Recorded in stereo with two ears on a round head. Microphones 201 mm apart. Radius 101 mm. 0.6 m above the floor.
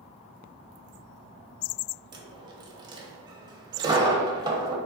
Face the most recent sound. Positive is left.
turn(degrees=-20)  # may be behind; listen again after turning